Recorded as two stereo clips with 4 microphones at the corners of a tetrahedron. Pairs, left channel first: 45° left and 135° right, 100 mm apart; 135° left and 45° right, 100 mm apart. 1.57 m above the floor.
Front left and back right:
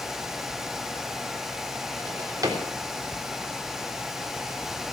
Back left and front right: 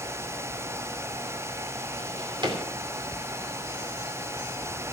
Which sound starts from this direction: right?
A drawer, at 2.0 s.